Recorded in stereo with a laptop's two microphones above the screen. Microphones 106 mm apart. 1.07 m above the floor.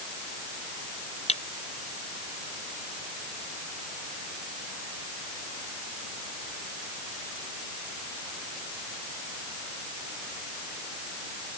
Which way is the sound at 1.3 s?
85° left.